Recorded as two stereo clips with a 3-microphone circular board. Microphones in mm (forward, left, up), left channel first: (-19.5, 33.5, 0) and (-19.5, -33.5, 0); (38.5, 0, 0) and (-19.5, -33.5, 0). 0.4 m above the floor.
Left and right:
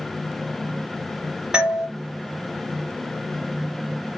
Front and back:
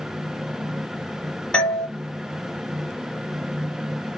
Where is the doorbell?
25° right, 1.2 m.